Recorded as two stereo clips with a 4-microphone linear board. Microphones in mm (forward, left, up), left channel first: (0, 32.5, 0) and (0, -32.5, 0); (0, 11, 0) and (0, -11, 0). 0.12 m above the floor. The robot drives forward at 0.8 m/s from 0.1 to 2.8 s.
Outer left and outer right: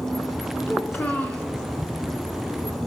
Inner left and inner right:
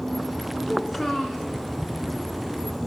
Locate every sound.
0.7 s a child speaking: 25° left (ahead or behind), 1.0 m; by 1.5 s 20° left (ahead or behind), 1.2 m